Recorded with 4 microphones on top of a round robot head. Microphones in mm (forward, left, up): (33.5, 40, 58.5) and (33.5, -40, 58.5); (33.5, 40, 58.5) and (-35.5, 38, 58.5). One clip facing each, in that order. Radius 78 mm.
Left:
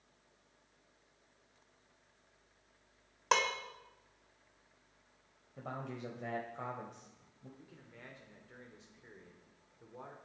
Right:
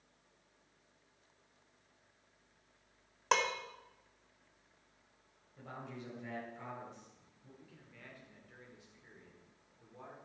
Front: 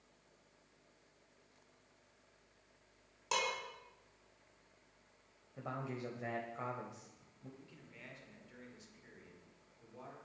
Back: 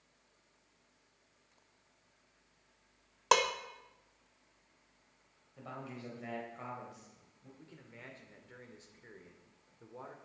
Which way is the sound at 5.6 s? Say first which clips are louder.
Left 4 dB, front 3 dB; 65° left.